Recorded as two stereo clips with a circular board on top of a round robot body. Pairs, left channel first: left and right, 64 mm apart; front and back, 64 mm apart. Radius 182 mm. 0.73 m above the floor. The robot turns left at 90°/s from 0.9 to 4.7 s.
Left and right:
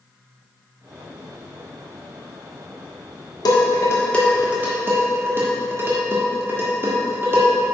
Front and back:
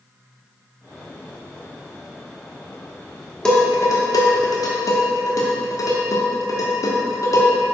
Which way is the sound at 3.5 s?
80° left.